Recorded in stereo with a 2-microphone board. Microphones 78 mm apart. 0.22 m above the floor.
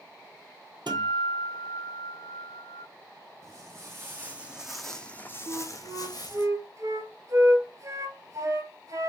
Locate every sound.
0.9 s a guitar: 85° right, 1.7 m
3.4 s footsteps: 40° right (ahead or behind), 1.2 m; by 6.5 s 70° left (ahead or behind), 1.1 m
5.5 s a flute: 45° right (ahead or behind), 0.7 m